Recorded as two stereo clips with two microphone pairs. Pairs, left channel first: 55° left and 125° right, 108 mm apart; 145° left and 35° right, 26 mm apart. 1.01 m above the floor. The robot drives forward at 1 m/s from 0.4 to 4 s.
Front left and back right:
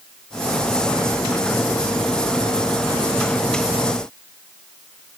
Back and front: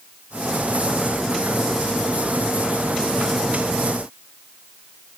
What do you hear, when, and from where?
Only background noise.